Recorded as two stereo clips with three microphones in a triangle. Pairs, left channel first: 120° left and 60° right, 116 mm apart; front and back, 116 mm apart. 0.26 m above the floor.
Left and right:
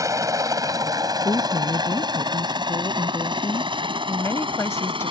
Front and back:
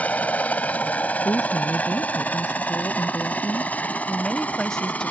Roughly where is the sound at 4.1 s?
Left.